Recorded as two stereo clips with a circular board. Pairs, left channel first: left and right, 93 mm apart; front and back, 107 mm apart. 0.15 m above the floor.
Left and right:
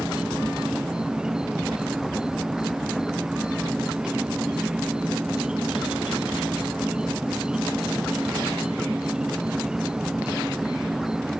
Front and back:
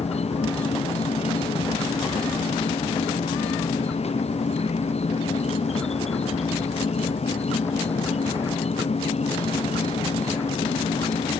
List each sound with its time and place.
0.0 s an insect: 10° right